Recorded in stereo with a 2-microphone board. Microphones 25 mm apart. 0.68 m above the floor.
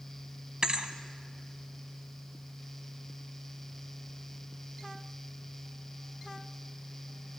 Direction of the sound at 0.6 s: 35° right (ahead or behind).